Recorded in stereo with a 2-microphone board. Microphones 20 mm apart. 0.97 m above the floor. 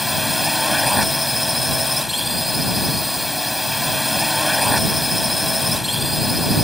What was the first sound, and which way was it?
A drone, 10° right (ahead or behind).